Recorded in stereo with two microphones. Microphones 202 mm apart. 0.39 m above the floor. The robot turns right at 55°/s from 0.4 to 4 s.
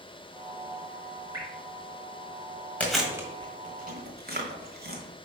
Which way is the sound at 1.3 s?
20° right (ahead or behind).